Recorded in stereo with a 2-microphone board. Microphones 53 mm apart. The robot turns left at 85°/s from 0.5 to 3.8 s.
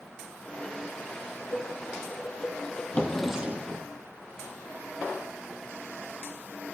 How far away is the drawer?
About 1.2 m.